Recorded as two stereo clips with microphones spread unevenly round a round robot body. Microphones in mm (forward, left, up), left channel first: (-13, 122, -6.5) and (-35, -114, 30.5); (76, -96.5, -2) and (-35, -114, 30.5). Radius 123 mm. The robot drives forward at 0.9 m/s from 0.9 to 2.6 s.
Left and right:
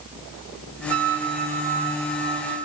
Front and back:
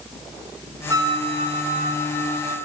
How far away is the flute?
About 0.5 m.